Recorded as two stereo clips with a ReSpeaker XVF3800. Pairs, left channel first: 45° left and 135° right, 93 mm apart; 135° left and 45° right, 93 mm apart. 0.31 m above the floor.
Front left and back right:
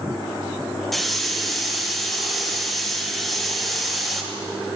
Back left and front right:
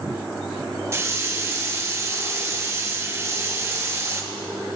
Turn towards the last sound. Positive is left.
turn(degrees=-45)